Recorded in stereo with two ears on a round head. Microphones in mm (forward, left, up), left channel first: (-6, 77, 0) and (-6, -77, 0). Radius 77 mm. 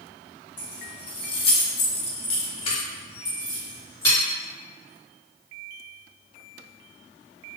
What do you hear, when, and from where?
0.6 s keys jangling: 25° left (ahead or behind), 1.3 m; by 4.2 s 15° left (ahead or behind), 1.7 m